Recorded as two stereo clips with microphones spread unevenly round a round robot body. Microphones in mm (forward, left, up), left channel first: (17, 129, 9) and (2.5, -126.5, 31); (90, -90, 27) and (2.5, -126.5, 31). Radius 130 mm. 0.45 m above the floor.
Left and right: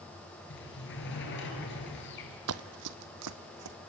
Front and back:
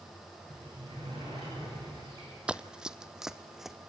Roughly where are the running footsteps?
Right.